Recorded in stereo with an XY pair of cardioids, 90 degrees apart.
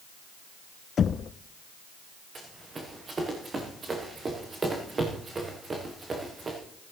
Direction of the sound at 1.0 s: 55° left.